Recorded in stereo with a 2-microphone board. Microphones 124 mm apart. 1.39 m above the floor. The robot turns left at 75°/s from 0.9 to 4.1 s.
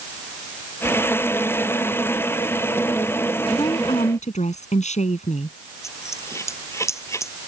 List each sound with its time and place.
3.5 s a woman speaking: 160° left; by 5.6 s 115° left
5.8 s a dropped coin: 25° left (ahead or behind)